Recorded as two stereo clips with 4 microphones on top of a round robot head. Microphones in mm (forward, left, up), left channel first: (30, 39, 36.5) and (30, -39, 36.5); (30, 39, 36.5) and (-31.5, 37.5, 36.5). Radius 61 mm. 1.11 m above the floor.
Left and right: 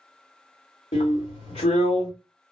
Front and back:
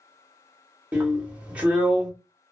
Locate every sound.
0.9 s a drill: 115° left, 1.1 m